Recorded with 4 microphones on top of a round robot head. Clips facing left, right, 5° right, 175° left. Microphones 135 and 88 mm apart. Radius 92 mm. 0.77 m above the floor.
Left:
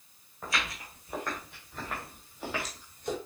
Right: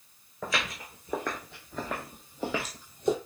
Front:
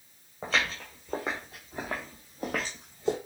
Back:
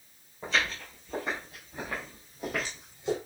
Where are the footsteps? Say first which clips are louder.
Right 2 dB, even; 65° right, 3.5 m; by 3.2 s 70° right, 1.4 m.